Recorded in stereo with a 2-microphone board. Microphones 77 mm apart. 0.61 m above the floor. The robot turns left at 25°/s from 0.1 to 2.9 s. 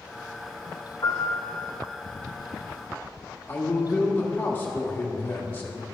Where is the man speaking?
25° left (ahead or behind), 1.3 m.